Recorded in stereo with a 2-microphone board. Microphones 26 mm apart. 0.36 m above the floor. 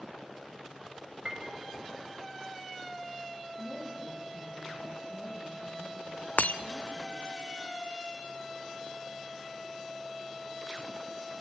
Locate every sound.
1.2 s a piano: 35° right (ahead or behind), 1.9 m
3.6 s a woman speaking: 5° right (ahead or behind), 6.5 m
6.4 s breaking glass: 85° left, 0.9 m